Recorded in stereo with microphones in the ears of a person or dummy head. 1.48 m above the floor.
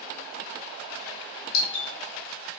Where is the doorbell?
35° left (ahead or behind), 3 m.